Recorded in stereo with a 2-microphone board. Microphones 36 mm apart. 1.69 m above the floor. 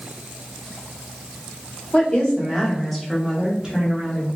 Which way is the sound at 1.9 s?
25° left (ahead or behind).